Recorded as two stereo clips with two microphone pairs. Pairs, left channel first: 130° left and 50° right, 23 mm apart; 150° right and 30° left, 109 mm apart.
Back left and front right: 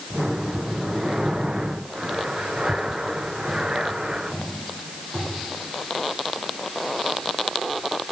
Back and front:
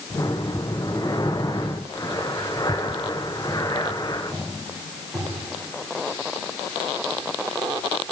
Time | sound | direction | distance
0.1 | breathing | 100° right | 3 m